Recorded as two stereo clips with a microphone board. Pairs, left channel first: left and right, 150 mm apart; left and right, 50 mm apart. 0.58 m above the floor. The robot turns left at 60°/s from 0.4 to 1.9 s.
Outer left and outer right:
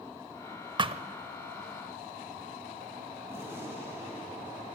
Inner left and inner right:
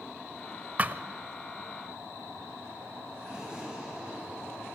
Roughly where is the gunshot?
Centre.